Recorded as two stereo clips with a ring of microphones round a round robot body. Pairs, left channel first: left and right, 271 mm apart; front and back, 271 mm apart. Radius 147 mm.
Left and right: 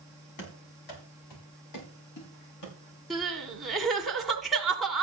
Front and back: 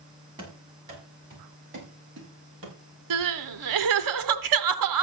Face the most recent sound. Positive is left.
turn(degrees=180)